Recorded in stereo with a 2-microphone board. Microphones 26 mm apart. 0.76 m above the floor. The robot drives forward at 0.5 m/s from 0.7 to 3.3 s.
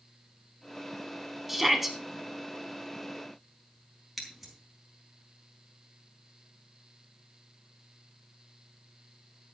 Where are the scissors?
5° left (ahead or behind), 4.5 m.